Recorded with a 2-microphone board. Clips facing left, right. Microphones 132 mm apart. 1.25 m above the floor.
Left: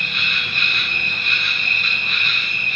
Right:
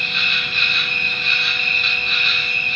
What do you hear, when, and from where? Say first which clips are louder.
0.0 s an insect: right 1 dB; 50° left (ahead or behind), 0.8 m